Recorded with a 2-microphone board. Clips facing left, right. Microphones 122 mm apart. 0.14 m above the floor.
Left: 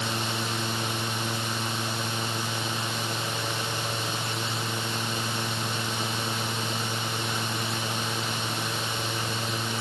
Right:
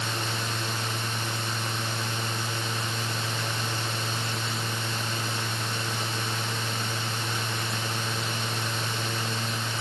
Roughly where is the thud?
No thud in this recording.